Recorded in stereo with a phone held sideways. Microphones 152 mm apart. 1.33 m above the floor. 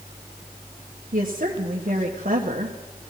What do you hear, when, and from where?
1.1 s a woman speaking: 55° right (ahead or behind), 1.4 m